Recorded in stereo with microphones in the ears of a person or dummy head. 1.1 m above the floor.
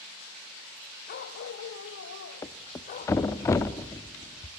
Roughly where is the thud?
Centre.